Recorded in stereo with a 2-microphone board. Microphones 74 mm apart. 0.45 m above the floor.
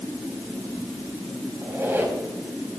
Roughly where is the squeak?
Right.